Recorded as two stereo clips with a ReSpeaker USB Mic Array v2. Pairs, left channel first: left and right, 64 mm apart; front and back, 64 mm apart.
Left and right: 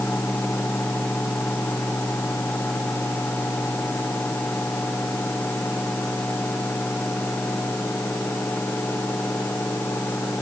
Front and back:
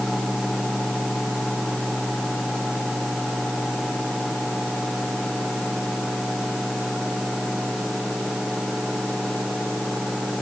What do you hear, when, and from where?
Only background noise.